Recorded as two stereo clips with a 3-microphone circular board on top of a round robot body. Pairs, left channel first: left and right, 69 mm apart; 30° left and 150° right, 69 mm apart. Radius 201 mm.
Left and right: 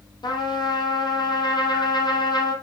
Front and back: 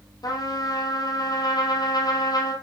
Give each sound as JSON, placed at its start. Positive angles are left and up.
{"t": 0.2, "sound": "a trumpet", "azimuth_deg": 65, "distance_m": 3.0}